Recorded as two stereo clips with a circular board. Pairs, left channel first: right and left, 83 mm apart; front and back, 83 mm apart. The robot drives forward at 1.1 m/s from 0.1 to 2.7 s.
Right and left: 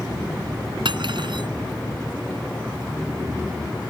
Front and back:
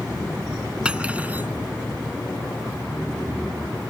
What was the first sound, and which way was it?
Cutlery clinking, 100° left.